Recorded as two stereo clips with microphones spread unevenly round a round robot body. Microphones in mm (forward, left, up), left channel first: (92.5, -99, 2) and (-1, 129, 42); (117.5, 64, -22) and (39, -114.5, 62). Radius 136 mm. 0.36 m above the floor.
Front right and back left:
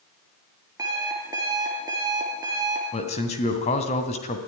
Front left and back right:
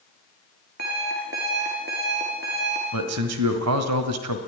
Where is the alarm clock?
170° right, 3 m.